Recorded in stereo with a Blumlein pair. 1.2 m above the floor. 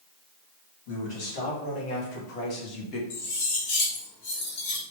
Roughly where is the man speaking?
Ahead left.